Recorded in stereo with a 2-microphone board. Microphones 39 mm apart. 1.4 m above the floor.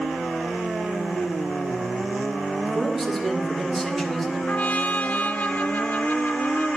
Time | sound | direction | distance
2.7 | a man speaking | centre (ahead or behind) | 2.5 m
4.5 | a trumpet | 40° left (ahead or behind) | 0.6 m